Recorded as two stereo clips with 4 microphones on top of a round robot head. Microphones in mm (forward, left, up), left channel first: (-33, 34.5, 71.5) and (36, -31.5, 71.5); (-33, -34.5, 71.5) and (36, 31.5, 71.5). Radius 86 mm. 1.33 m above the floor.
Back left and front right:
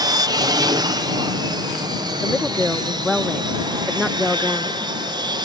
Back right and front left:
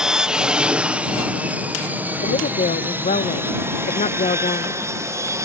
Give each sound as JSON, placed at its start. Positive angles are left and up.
{"t": 0.0, "sound": "an aircraft", "azimuth_deg": -35}
{"t": 2.2, "sound": "a woman speaking", "azimuth_deg": -130}